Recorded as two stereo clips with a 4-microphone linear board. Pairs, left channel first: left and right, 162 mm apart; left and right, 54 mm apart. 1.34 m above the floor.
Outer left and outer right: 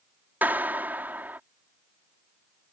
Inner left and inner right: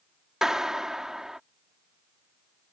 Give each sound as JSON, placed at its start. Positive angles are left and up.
{"t": 0.4, "sound": "a clap", "side_deg": -10}